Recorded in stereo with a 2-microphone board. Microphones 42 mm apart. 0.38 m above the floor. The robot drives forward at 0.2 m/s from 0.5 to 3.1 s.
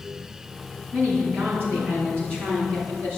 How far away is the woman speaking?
About 3.5 m.